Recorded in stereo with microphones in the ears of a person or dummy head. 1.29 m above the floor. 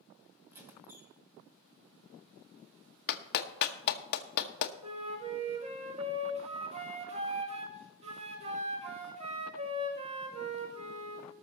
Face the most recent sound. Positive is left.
turn(degrees=-35)  # may be behind; listen again after turning